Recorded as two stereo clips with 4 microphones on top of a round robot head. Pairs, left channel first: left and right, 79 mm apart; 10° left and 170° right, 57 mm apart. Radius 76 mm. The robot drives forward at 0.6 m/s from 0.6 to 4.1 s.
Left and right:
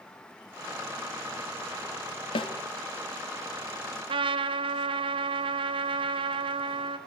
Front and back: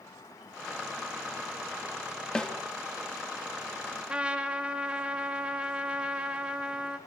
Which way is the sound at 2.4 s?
85° left.